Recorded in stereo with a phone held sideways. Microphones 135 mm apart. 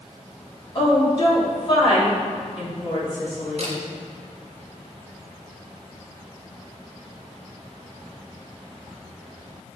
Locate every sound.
0.8 s a woman speaking: 40° left (ahead or behind), 3.5 m
3.6 s a camera shutter: 50° right (ahead or behind), 1.5 m